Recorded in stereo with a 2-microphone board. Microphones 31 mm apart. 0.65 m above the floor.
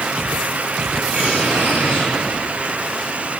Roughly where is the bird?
Right.